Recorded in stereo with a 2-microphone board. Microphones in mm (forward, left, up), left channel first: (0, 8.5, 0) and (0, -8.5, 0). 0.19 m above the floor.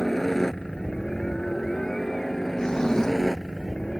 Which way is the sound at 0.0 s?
20° left (ahead or behind).